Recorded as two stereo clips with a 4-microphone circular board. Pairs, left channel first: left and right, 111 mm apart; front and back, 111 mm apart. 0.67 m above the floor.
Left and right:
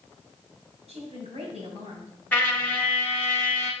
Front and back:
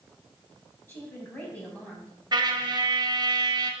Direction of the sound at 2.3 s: 160° left.